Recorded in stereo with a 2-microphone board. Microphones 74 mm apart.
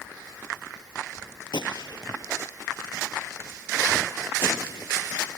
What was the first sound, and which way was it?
A gunshot, 80° left.